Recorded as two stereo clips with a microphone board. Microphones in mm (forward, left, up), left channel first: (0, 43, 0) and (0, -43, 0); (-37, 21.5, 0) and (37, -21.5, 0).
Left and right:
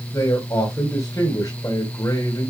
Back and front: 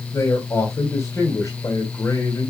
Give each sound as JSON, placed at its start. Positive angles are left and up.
{"t": 0.1, "sound": "a man speaking", "azimuth_deg": 115, "distance_m": 2.0}